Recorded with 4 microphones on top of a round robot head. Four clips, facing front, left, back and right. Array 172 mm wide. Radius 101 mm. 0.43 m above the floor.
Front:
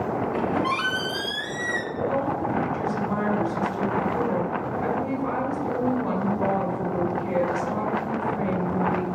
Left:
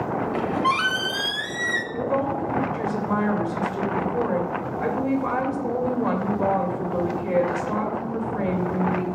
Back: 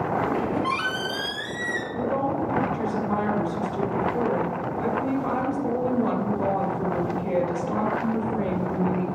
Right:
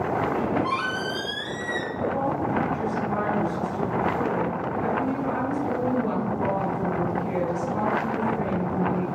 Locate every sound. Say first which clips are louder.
0.2 s a squeak: left 2 dB, even; 85° left, 1.5 m
1.9 s a woman speaking: left 2 dB, back 1 dB; 110° left, 2.5 m